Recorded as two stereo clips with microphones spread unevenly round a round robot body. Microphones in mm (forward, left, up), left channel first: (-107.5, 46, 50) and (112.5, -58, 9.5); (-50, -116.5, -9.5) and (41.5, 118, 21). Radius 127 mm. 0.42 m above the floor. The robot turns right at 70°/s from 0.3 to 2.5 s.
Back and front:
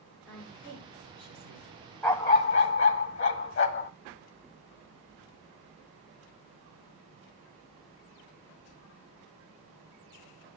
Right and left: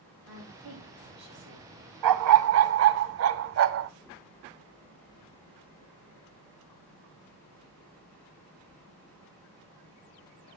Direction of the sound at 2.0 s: 75° left.